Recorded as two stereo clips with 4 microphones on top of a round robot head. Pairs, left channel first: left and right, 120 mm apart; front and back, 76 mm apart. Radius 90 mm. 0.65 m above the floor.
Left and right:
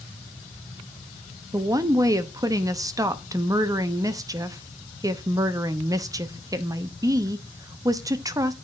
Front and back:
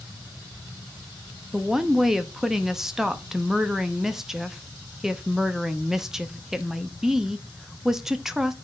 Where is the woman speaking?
100° right, 0.7 m.